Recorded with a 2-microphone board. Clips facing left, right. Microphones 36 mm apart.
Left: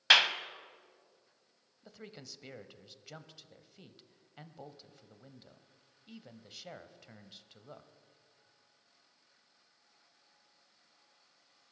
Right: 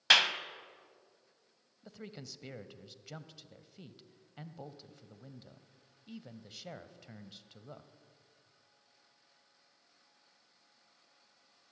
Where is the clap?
10° left (ahead or behind), 1.0 m.